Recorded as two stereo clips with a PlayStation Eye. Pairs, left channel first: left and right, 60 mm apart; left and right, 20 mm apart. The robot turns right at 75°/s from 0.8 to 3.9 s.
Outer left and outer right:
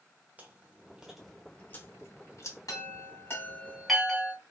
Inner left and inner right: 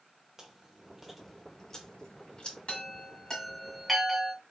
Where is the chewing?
25° right (ahead or behind), 1.0 m; by 2.6 s 55° left (ahead or behind), 1.0 m.